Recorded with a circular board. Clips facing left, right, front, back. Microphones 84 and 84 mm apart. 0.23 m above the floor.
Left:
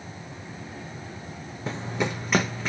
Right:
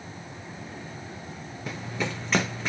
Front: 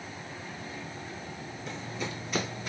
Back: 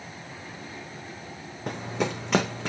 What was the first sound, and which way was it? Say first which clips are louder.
Running footsteps: left 3 dB, back 9 dB; 150° left.